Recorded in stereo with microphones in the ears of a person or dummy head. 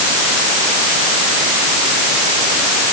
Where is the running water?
No running water in this recording.